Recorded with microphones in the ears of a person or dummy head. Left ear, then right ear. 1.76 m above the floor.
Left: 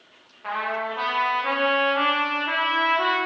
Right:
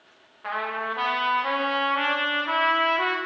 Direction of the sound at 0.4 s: 15° right (ahead or behind).